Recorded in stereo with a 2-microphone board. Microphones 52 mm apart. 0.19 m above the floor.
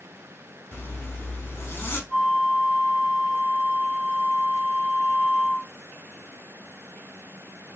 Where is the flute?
25° left (ahead or behind), 1.9 m.